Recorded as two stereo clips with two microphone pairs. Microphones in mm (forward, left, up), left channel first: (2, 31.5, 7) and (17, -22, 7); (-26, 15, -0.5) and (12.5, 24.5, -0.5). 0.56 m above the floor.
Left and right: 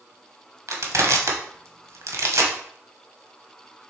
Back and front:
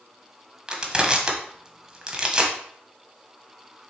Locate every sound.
0.7 s crushing: 55° right, 1.3 m